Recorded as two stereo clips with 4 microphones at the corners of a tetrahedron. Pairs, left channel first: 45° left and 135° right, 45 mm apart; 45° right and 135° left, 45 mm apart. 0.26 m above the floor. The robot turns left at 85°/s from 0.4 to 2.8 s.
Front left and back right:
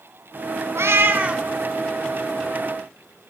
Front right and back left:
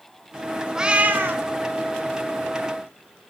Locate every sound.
0.8 s a cat meowing: 150° right, 0.5 m; by 1.4 s 150° left, 0.5 m